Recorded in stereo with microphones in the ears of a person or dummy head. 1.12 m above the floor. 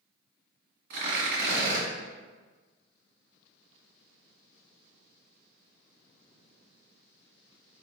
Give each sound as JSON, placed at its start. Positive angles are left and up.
{"t": 0.9, "sound": "tearing paper", "side_deg": -60, "distance_m": 2.0}